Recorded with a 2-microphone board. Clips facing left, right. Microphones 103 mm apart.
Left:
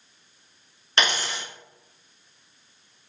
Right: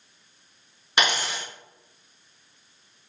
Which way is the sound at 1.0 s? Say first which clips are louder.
Right 1 dB; 10° right (ahead or behind).